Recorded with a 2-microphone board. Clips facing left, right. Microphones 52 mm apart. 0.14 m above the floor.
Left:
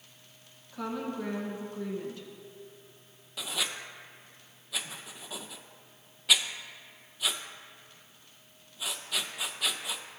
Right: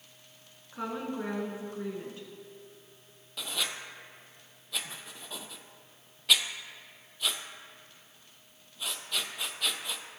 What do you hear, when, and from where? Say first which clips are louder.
0.7 s a woman speaking: even; 25° right (ahead or behind), 1.6 m
3.4 s writing: even; centre (ahead or behind), 0.6 m